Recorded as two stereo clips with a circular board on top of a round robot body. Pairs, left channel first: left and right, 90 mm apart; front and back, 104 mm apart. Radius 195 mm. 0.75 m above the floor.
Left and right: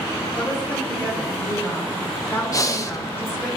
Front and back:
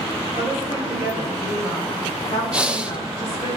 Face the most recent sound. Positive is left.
turn(degrees=105)